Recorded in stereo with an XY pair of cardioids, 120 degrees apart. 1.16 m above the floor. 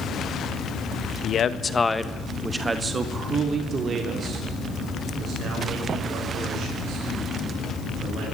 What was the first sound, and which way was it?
A man speaking, 50° left.